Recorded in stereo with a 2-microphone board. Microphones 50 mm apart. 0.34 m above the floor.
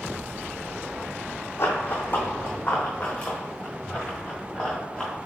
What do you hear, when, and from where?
1.6 s running footsteps: 55° left (ahead or behind), 0.8 m; by 5.2 s 15° left (ahead or behind), 2.5 m